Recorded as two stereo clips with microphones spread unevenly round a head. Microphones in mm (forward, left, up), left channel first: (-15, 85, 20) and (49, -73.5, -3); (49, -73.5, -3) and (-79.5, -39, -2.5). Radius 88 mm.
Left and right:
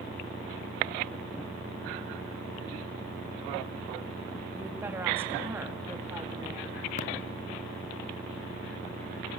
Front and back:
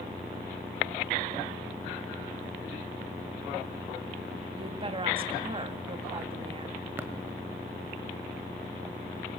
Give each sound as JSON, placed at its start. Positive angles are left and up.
{"t": 4.6, "sound": "a woman speaking", "azimuth_deg": -145, "distance_m": 2.0}
{"t": 7.0, "sound": "tapping", "azimuth_deg": 90, "distance_m": 1.2}